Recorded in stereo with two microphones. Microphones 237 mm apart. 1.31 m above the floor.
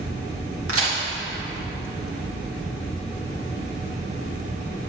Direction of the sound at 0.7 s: 80° right.